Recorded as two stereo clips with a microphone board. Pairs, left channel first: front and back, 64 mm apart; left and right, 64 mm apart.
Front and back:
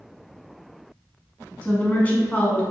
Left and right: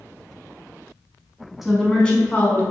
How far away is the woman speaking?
About 1.1 m.